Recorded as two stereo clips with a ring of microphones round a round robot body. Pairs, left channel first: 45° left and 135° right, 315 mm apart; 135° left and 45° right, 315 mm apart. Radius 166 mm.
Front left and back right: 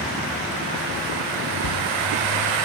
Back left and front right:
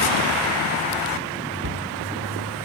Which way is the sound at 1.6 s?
5° left.